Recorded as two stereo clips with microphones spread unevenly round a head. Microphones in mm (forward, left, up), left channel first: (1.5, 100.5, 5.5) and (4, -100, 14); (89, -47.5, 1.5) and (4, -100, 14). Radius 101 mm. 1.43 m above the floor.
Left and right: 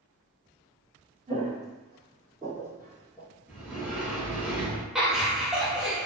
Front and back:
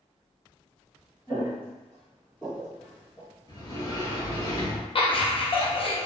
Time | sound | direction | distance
1.3 | footsteps | 45° right | 1.7 m
3.5 | a sliding door | 10° right | 1.5 m
5.0 | laughter | straight ahead | 0.8 m